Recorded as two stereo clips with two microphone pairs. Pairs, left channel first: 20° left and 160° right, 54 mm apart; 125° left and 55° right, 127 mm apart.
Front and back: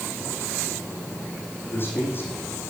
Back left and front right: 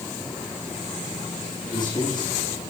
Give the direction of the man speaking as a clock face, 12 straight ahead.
10 o'clock.